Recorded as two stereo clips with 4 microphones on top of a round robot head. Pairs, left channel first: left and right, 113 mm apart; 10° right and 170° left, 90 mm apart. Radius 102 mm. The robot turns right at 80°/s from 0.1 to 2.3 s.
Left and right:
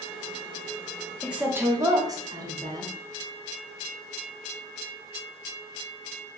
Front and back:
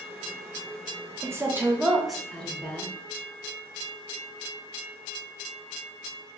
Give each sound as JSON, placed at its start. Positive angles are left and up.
{"t": 1.2, "sound": "a woman speaking", "azimuth_deg": -170, "distance_m": 1.0}